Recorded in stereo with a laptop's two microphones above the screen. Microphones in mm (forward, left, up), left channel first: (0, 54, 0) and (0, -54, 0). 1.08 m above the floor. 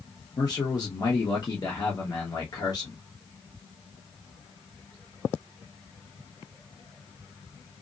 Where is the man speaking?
35° left (ahead or behind), 1.0 m.